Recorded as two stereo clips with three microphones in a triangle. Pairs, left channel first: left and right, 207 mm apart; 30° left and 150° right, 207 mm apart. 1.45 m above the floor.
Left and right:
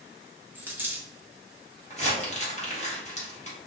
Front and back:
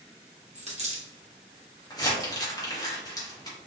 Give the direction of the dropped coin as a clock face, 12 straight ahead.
5 o'clock.